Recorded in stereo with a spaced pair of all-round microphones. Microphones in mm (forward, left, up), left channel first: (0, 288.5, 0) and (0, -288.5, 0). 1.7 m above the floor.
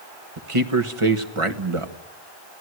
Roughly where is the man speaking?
Right.